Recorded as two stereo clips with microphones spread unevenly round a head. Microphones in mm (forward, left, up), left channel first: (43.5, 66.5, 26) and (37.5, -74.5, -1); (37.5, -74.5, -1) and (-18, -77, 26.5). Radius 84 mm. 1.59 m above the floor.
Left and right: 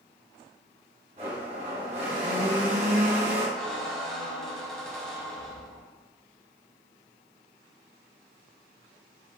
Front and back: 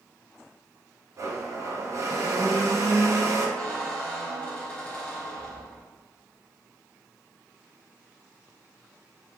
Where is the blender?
150° right, 3 m.